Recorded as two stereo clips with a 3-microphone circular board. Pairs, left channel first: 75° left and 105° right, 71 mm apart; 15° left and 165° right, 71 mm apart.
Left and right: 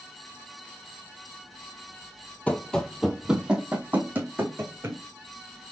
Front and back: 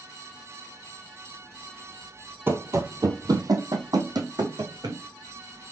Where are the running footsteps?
140° left, 0.6 m; by 5.0 s 160° right, 1.6 m.